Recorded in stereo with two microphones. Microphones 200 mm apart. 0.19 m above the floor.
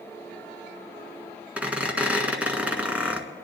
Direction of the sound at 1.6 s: 5° right (ahead or behind).